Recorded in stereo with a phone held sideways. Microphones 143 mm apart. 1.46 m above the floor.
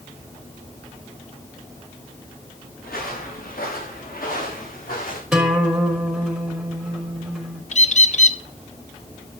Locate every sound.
2.8 s footsteps: 80° left, 7.5 m; by 5.2 s 70° left (ahead or behind), 8 m
5.3 s a guitar: 5° right (ahead or behind), 4.5 m
7.7 s a bird: 55° left (ahead or behind), 0.6 m